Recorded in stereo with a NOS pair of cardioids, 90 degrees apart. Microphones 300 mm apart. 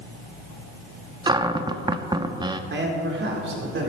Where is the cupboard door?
15° right, 0.7 m.